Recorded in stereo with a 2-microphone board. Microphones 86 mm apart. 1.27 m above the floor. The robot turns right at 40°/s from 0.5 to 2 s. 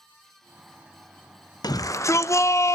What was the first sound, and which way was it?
A shout, 50° left (ahead or behind).